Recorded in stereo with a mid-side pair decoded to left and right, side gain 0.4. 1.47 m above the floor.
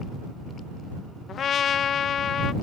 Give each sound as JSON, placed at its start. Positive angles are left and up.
{"t": 1.3, "sound": "a trumpet", "azimuth_deg": 65}